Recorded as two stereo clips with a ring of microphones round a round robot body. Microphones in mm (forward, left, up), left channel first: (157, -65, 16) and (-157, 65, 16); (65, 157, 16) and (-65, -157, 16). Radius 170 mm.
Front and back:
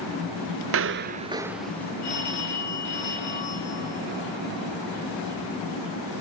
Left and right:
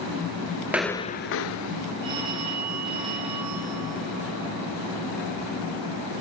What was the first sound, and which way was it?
Footsteps, 170° left.